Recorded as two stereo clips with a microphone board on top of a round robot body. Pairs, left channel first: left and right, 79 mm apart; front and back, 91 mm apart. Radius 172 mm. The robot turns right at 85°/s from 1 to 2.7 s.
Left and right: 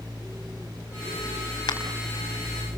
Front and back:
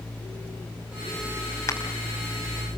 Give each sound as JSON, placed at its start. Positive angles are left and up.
{"t": 1.7, "sound": "a crack", "azimuth_deg": 60, "distance_m": 4.5}